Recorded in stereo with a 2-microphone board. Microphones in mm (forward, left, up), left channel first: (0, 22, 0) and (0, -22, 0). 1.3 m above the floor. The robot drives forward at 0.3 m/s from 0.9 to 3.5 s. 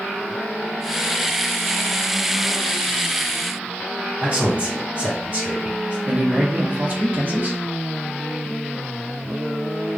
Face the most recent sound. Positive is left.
turn(degrees=-40)  # may be behind; listen again after turning